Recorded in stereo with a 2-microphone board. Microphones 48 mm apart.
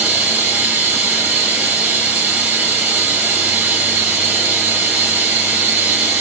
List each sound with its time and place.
0.0 s running water: 30° right (ahead or behind), 1.4 m